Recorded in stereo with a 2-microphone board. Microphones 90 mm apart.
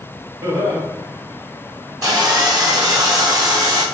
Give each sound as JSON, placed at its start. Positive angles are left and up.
{"t": 0.4, "sound": "laughter", "side_deg": -45, "distance_m": 1.6}
{"t": 2.0, "sound": "sawing", "side_deg": -45, "distance_m": 1.3}